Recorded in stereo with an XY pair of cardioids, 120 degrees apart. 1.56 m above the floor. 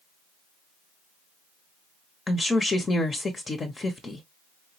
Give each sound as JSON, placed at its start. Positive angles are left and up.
{"t": 2.3, "sound": "a woman speaking", "azimuth_deg": 25, "distance_m": 0.9}